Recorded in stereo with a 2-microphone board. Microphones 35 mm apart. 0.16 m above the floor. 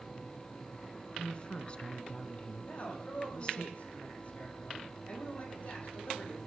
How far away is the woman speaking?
About 1.5 m.